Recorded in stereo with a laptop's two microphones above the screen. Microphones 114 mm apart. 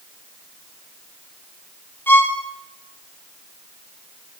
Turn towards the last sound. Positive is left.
turn(degrees=20)  # may be behind; listen again after turning